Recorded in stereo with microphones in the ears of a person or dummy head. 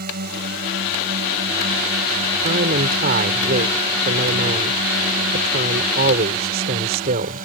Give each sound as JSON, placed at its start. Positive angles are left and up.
{"t": 0.0, "sound": "a drone", "side_deg": -45}
{"t": 2.4, "sound": "a man speaking", "side_deg": -45}